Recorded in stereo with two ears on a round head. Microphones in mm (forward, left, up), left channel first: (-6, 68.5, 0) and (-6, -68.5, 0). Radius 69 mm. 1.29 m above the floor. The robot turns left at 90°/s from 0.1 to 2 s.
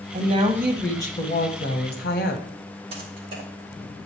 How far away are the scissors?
No scissors in this recording.